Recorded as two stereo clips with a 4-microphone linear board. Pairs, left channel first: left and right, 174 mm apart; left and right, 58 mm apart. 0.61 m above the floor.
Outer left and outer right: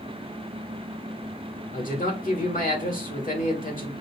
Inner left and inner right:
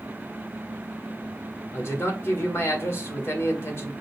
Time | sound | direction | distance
1.7 | a man speaking | 50° left (ahead or behind) | 1.6 m